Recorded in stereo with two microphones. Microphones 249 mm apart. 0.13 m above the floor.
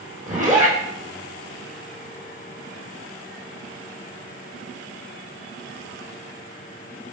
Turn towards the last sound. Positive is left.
turn(degrees=-30)  # may be behind; listen again after turning